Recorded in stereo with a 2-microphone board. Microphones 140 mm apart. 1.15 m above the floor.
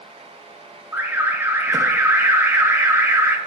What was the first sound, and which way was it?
An alarm, 15° right (ahead or behind).